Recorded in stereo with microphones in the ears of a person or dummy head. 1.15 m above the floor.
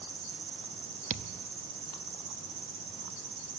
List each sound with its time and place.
0.0 s an insect: 65° right (ahead or behind), 2 m
1.1 s a thud: 45° right (ahead or behind), 0.7 m